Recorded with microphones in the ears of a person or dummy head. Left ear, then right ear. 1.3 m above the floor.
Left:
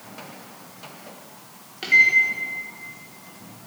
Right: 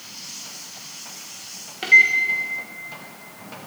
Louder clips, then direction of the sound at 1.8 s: Right 2 dB; 20° right (ahead or behind).